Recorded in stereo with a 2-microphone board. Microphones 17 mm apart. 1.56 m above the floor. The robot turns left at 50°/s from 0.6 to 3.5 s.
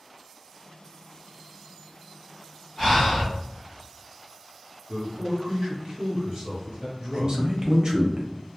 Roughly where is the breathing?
Left.